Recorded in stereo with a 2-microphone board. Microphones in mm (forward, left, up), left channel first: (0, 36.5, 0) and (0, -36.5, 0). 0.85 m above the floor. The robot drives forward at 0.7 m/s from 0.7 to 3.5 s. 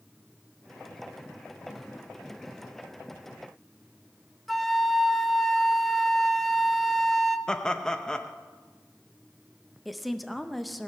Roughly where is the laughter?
Centre.